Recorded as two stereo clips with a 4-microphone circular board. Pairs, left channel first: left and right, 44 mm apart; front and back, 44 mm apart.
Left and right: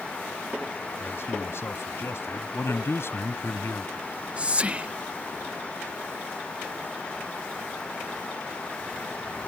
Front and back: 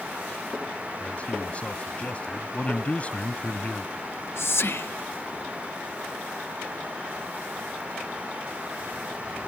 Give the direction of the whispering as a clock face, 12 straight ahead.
1 o'clock.